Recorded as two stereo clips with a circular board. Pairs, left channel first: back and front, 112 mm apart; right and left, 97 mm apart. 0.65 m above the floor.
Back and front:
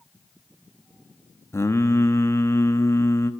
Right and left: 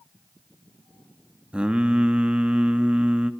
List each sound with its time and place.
1.5 s singing: 160° left, 1.0 m